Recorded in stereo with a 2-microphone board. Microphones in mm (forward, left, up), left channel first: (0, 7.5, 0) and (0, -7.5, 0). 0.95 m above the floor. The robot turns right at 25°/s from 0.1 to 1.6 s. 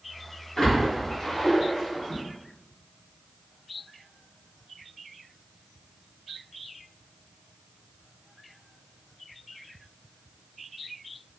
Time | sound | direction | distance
0.6 | a splash | 60° left (ahead or behind) | 1.3 m